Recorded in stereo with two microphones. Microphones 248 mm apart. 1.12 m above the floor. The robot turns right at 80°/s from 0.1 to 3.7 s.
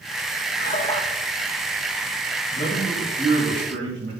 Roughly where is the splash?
Behind left.